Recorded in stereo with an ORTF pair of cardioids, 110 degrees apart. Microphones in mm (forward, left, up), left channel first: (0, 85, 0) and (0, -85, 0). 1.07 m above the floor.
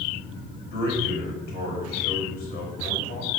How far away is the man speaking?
About 4.5 m.